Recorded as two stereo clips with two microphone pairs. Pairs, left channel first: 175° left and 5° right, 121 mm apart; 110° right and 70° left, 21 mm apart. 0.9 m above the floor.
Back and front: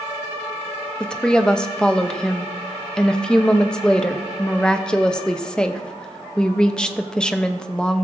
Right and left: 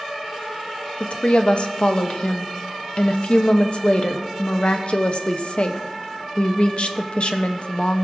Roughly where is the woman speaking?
Right.